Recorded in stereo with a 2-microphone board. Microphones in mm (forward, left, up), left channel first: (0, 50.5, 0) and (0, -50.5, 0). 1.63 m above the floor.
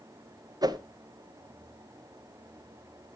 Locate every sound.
0.6 s a whoosh: 40° right (ahead or behind), 0.9 m